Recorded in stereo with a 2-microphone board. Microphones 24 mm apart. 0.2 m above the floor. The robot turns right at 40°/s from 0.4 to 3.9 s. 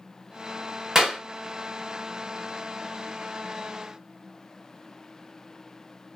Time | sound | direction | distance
0.9 | a clap | 25° right (ahead or behind) | 1.2 m